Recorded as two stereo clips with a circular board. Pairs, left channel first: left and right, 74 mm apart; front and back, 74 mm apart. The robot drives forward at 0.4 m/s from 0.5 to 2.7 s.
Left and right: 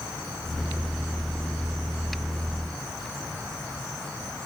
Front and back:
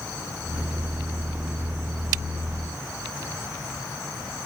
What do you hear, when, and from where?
Only background noise.